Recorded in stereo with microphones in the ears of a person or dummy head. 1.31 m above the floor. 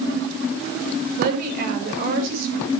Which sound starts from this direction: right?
A woman speaking, at 1.2 s.